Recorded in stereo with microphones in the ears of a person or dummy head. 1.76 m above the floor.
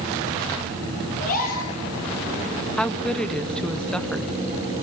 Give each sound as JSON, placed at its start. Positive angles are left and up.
{"t": 1.2, "sound": "a gasp", "side_deg": 45, "distance_m": 7.5}
{"t": 2.8, "sound": "a woman speaking", "side_deg": 5, "distance_m": 1.2}